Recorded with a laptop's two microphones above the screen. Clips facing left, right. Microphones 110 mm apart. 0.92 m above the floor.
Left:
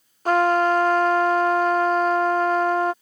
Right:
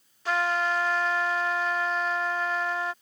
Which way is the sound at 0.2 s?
50° left (ahead or behind).